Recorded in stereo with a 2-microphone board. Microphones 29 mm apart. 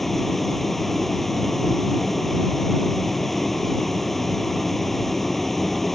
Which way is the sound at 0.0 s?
10° left (ahead or behind).